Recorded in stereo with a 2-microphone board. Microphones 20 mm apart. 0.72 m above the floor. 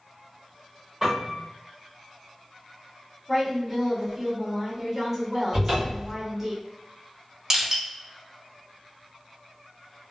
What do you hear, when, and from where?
1.0 s a piano: 10° right (ahead or behind), 1.6 m
3.3 s a woman speaking: 10° right (ahead or behind), 1.3 m
5.5 s a cupboard door: 20° right (ahead or behind), 1.4 m
7.5 s crushing: 25° right (ahead or behind), 1.0 m